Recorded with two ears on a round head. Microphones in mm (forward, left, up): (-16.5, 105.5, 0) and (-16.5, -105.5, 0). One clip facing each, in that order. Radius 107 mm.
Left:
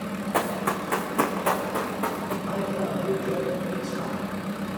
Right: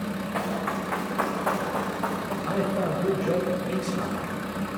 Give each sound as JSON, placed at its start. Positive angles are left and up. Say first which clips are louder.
{"t": 0.3, "sound": "running footsteps", "louder": "left 4 dB", "side_deg": 60, "distance_m": 3.5}
{"t": 2.5, "sound": "a man speaking", "louder": "right 3 dB", "side_deg": -65, "distance_m": 4.5}